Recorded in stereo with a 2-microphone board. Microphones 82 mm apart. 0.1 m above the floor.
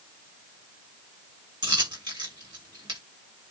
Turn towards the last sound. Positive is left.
turn(degrees=-60)  # may be behind; listen again after turning